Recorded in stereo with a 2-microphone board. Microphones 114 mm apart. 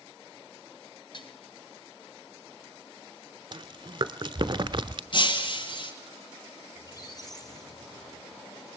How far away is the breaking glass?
About 1.7 m.